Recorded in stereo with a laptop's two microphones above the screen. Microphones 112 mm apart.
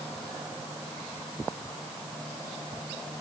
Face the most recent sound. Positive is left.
No sound to turn to.